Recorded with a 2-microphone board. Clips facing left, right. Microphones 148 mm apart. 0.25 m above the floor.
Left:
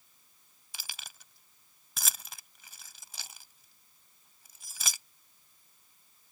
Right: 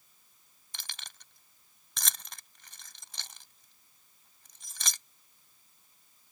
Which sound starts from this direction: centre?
Keys jangling, at 0.7 s.